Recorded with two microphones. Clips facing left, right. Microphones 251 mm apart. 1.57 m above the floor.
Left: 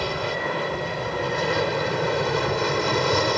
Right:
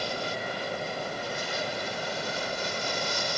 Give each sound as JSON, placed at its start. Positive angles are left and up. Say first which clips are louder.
{"t": 0.0, "sound": "an aircraft", "louder": "left 7 dB", "side_deg": 70}